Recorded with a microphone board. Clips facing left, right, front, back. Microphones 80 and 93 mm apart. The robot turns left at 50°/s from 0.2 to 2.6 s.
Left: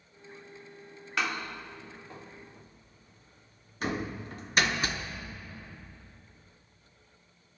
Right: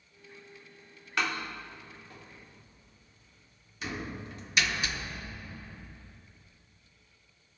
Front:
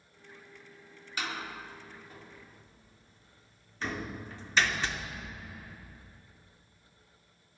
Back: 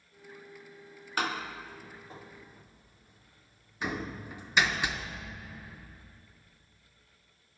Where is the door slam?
175° left, 0.8 m; by 5.4 s 105° left, 0.8 m.